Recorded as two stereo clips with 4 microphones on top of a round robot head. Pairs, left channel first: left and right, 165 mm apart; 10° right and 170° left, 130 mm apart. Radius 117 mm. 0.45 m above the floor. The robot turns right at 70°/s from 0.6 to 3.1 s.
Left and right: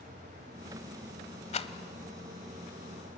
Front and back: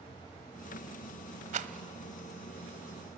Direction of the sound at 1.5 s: 140° left.